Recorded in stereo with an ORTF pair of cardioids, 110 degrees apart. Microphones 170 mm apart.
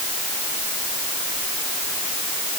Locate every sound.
Only background noise.